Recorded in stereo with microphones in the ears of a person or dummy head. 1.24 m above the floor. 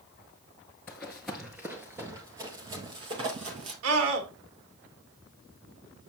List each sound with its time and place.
0.9 s running footsteps: 10° left (ahead or behind), 1.3 m; by 3.7 s 35° right (ahead or behind), 2.0 m
3.8 s a scream: 85° right, 3 m